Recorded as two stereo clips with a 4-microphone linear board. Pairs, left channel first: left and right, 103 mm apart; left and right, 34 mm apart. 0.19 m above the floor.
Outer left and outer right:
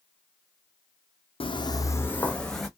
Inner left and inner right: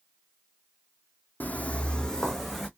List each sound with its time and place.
1.4 s footsteps: 60° left (ahead or behind), 0.6 m; by 2.7 s centre (ahead or behind), 1.0 m